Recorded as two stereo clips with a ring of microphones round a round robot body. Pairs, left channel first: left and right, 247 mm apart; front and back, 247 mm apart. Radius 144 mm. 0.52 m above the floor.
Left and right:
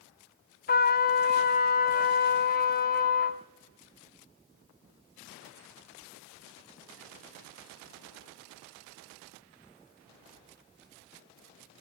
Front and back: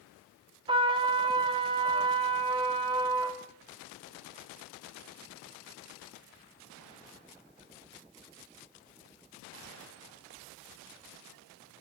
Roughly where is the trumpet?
Behind left.